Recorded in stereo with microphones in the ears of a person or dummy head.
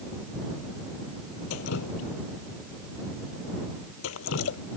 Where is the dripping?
75° left (ahead or behind).